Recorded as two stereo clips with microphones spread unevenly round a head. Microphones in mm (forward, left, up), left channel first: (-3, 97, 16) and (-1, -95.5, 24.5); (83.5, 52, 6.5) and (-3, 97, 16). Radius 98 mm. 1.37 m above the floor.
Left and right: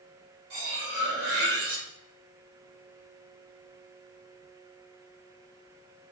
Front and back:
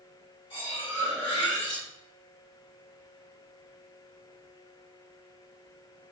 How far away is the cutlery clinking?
About 1.1 m.